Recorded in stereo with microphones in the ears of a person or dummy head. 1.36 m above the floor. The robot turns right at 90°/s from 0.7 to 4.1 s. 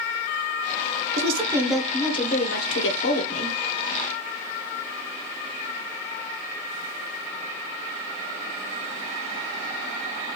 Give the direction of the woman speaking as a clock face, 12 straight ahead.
2 o'clock.